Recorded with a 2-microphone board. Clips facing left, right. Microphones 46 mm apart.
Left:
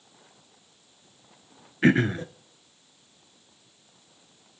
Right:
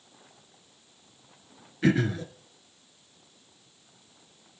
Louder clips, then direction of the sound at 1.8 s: Left 4 dB; 40° left (ahead or behind).